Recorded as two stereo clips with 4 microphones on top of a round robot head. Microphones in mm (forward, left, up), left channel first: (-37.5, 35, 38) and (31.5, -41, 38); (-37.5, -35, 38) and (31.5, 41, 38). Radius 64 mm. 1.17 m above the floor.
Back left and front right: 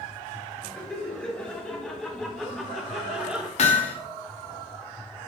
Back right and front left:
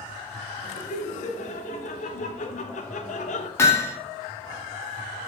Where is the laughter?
150° right, 3 m; by 3.5 s 130° right, 1.2 m.